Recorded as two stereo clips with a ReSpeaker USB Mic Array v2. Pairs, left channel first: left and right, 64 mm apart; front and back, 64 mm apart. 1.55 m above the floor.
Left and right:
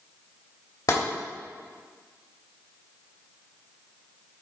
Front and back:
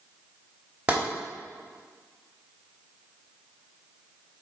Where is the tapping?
110° left, 2.5 m.